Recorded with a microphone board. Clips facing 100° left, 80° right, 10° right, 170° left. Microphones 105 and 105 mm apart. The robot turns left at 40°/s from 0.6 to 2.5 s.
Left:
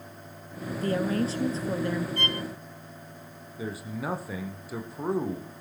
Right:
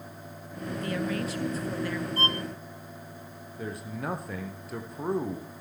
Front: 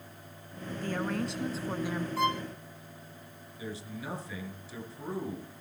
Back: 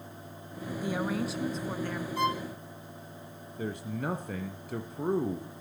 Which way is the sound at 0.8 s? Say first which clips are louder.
Left 5 dB, back 1 dB; 105° left.